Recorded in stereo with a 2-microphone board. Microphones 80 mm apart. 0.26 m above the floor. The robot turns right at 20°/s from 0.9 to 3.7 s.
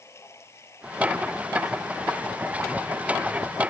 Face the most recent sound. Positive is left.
turn(degrees=90)